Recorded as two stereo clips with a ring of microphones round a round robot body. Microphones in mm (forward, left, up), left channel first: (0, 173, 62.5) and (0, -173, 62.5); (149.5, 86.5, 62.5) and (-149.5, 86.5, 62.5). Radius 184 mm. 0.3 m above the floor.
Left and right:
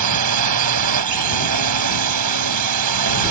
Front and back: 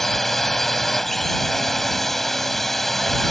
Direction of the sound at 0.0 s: 90° right.